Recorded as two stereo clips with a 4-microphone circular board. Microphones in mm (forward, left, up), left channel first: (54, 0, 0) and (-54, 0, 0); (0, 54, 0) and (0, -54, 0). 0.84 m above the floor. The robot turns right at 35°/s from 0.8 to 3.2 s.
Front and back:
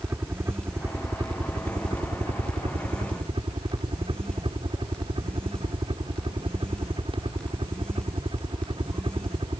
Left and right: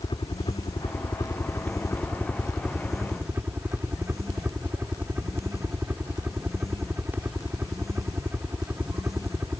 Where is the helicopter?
115° left; by 9.6 s 160° right.